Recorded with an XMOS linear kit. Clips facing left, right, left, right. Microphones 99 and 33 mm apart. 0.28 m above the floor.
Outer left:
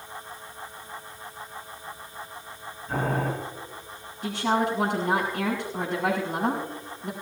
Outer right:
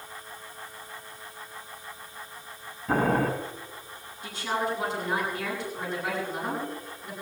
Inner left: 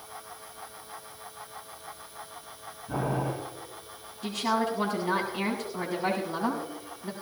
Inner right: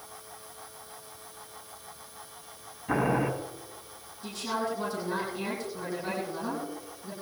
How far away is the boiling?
About 4.5 m.